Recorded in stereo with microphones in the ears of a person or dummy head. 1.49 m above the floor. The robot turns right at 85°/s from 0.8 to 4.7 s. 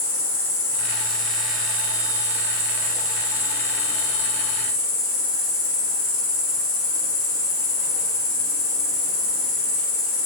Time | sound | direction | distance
0.0 | an insect | 140° left | 1.4 m